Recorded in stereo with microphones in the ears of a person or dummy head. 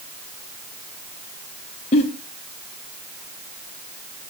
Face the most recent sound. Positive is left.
turn(degrees=35)  # may be behind; listen again after turning